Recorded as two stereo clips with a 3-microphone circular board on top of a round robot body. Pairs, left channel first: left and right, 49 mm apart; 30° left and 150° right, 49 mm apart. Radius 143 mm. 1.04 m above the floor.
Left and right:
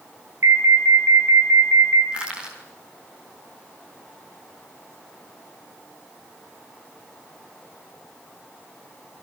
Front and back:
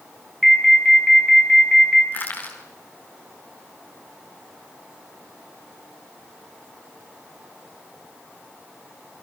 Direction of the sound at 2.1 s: 20° right.